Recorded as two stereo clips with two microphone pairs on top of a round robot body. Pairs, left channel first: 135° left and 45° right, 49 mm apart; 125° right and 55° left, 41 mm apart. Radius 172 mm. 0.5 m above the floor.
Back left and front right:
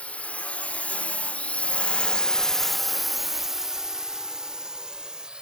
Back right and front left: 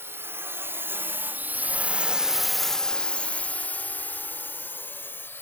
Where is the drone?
75° left; by 5.4 s 115° right.